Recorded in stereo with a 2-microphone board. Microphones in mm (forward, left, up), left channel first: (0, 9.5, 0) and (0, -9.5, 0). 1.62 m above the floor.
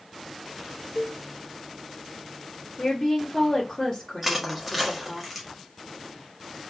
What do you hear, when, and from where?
0.9 s a cowbell: 25° right (ahead or behind), 0.7 m
2.8 s a woman speaking: 20° left (ahead or behind), 1.8 m
4.2 s crushing: 10° right (ahead or behind), 1.5 m